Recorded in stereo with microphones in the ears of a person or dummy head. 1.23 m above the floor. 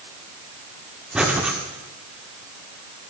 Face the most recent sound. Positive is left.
turn(degrees=0)  # may be behind; listen again after turning